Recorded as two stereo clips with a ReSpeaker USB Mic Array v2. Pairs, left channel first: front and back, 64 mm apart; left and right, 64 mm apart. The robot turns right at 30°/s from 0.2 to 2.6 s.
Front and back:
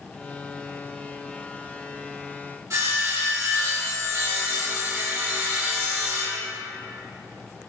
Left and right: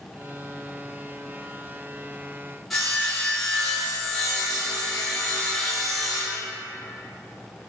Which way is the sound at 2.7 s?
175° left.